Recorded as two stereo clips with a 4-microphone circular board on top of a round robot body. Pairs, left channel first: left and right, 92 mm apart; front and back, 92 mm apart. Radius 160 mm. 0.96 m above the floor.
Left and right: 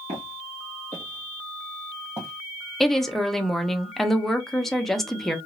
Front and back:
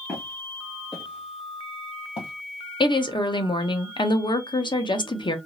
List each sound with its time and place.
0.1 s footsteps: 80° right, 1.6 m; by 2.3 s 25° right, 1.9 m
2.8 s a woman speaking: 5° left, 0.9 m